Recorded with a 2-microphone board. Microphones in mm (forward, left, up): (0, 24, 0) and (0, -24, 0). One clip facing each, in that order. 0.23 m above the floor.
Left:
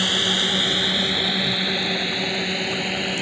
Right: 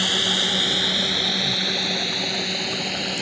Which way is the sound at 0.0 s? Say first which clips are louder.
Left 1 dB; 5° left (ahead or behind).